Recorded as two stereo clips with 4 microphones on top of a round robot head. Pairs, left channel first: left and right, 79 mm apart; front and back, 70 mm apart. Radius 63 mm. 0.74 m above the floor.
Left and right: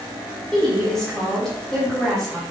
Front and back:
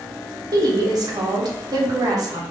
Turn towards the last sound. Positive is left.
turn(degrees=175)